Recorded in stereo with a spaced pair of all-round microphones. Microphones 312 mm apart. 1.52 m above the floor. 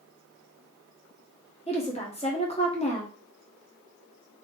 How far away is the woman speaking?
About 1.4 m.